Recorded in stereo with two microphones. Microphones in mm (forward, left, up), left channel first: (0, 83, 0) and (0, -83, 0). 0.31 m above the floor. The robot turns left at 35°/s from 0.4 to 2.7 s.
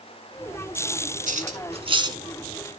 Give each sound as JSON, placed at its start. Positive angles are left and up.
{"t": 1.3, "sound": "cutlery clinking", "side_deg": -55, "distance_m": 1.8}